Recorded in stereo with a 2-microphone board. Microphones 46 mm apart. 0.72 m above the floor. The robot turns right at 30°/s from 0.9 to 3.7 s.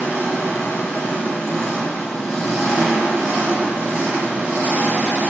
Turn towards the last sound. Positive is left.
turn(degrees=-150)